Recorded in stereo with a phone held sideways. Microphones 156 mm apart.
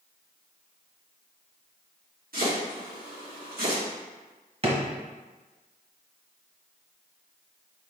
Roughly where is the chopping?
Right.